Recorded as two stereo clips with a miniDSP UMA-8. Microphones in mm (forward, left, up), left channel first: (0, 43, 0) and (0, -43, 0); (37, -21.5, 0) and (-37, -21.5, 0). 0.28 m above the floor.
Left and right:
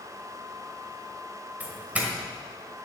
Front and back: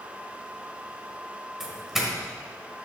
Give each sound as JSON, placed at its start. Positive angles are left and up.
{"t": 1.6, "sound": "a doorbell", "azimuth_deg": -105, "distance_m": 1.5}